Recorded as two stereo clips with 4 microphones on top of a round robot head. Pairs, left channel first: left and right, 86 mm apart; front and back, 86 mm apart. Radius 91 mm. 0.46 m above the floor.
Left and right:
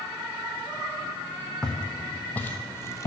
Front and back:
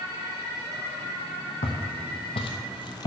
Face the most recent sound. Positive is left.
turn(degrees=40)